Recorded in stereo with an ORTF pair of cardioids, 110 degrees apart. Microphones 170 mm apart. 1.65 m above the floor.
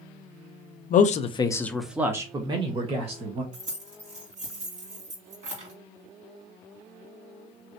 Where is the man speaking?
55° left, 0.7 m; by 3.4 s 40° right, 1.6 m.